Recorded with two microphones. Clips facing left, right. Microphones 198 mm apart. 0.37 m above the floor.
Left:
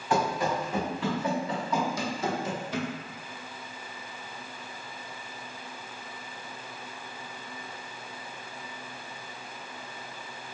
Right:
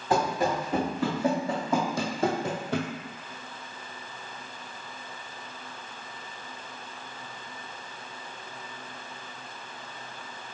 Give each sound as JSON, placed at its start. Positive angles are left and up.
{"t": 0.1, "sound": "running footsteps", "side_deg": -40, "distance_m": 1.8}